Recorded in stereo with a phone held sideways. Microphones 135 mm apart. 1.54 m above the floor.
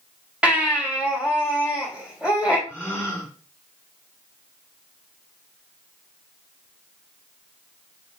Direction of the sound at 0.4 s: 10° right (ahead or behind).